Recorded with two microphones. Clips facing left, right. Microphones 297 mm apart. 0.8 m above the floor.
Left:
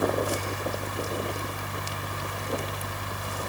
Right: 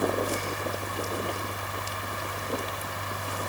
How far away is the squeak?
No squeak in this recording.